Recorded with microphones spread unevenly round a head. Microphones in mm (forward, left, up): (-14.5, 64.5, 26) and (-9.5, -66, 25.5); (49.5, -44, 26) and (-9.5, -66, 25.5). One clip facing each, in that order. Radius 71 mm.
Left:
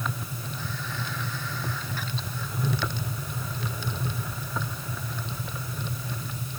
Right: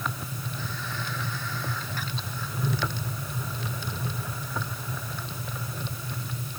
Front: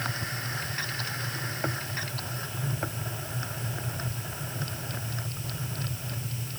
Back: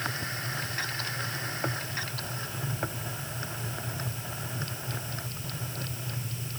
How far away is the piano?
I don't hear a piano.